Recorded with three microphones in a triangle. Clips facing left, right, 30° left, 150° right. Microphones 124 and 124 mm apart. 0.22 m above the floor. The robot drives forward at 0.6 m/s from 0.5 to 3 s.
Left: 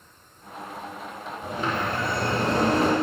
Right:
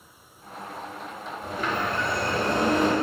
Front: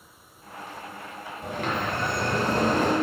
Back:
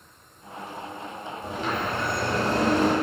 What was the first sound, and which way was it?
A sliding door, 25° left.